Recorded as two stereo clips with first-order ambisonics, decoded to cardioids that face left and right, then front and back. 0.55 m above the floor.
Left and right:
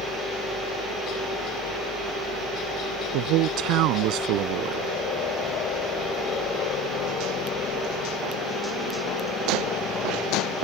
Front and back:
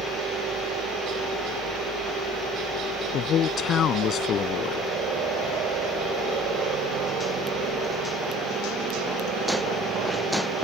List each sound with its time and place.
0.0 s a helicopter: 130° left
3.1 s a man speaking: 55° right